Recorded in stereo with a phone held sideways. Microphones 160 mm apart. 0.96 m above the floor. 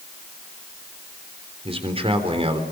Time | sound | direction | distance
1.6 | a man speaking | 40° right (ahead or behind) | 3.5 m